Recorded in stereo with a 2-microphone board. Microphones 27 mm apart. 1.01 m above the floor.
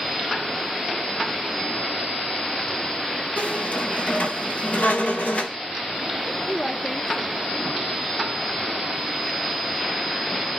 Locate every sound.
3.4 s a squeak: 75° left (ahead or behind), 1.9 m
6.3 s a woman speaking: 35° left (ahead or behind), 2.5 m